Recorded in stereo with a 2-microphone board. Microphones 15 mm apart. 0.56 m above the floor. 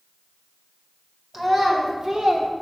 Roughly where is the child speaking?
Centre.